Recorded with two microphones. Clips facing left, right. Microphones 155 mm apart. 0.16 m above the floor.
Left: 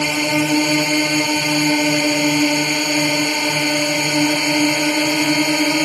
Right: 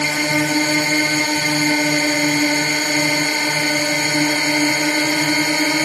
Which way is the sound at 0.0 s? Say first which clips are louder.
Left 2 dB; 10° left (ahead or behind).